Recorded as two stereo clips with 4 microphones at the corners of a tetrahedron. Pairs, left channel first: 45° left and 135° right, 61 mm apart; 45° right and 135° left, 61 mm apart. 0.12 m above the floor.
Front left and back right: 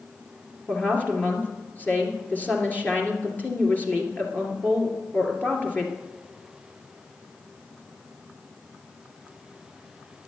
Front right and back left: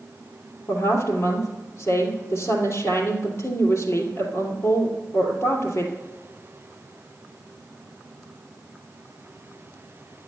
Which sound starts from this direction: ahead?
A woman speaking, at 0.7 s.